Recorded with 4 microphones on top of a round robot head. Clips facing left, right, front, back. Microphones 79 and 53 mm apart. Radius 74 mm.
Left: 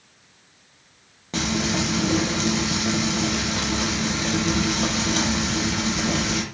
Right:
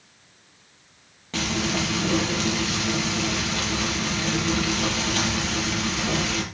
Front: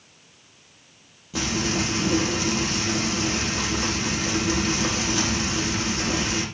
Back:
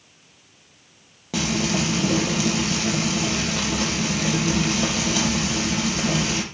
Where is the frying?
160° left, 6 m.